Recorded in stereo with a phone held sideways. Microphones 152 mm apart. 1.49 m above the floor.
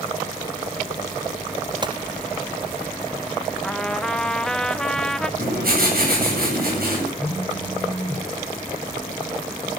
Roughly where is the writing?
Right.